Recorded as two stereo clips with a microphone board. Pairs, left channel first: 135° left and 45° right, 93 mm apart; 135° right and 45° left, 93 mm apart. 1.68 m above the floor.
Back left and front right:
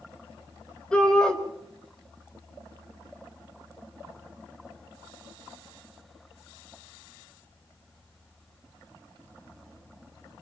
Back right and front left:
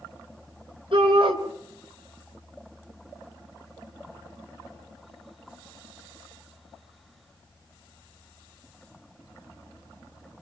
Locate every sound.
0.9 s a shout: 55° left, 5.5 m